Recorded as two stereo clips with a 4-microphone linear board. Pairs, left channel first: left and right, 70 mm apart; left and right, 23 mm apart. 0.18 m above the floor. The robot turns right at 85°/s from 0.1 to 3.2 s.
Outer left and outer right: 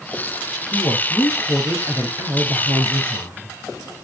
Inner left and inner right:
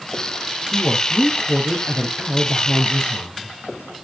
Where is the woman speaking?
110° left, 4 m; by 3.5 s 40° right, 4 m.